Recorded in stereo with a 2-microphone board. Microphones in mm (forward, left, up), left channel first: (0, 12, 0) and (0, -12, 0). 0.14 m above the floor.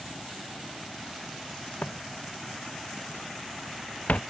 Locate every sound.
1.8 s footsteps: 85° left; by 4.2 s 80° left